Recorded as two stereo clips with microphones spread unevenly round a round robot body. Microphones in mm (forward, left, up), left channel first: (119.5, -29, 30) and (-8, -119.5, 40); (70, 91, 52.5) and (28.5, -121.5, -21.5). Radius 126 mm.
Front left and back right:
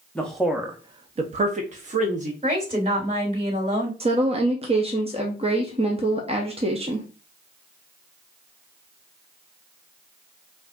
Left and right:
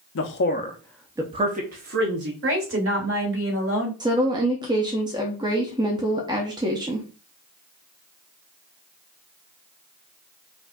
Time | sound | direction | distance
0.1 | a man speaking | 110° left | 0.7 m
2.4 | a woman speaking | 90° right | 3 m
4.0 | a woman speaking | 115° right | 0.7 m